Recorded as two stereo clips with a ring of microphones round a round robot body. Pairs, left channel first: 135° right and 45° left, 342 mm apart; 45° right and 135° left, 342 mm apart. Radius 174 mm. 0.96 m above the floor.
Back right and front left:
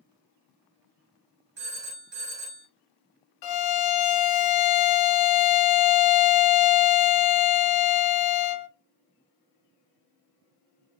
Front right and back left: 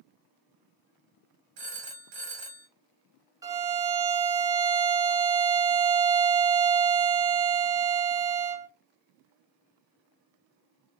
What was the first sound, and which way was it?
A phone ringing, 105° left.